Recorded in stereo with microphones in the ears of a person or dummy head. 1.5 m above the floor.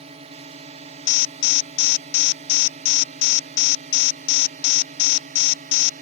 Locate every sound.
0.0 s a drone: 35° right (ahead or behind); by 6.0 s 45° right (ahead or behind)
1.1 s an alarm: 70° left (ahead or behind)